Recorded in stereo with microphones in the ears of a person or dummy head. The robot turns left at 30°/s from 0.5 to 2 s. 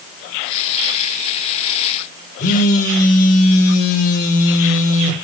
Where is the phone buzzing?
35° left (ahead or behind), 0.8 m.